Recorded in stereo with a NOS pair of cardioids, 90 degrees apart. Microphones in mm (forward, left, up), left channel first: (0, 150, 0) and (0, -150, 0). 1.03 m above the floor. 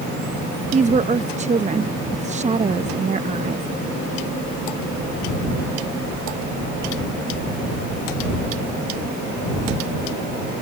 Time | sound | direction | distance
0.7 | a woman speaking | 25° right | ?